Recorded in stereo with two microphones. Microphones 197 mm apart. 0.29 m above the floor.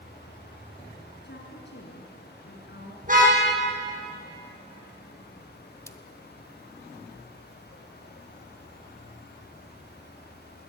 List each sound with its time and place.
1.2 s a woman speaking: 65° left (ahead or behind), 3.5 m
3.0 s a car horn: 40° right (ahead or behind), 7.5 m
5.9 s a splash: 15° left (ahead or behind), 1.1 m